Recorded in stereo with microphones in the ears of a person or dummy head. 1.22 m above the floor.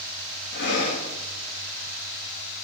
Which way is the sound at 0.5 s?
55° left (ahead or behind).